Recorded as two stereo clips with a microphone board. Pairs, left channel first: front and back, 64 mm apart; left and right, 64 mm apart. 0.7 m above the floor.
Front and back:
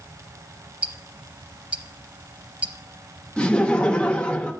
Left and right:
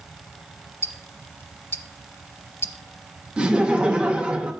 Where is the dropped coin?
No dropped coin in this recording.